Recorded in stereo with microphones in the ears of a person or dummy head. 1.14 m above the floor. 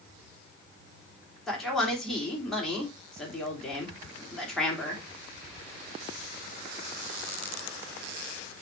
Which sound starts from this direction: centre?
A man speaking, at 1.5 s.